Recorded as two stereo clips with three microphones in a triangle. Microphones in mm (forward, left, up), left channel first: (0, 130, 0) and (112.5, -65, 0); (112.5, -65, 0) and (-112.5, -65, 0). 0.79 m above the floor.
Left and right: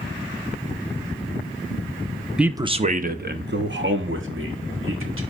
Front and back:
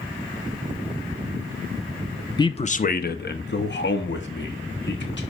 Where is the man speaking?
20° left, 0.5 m; by 5.2 s 35° right, 1.9 m.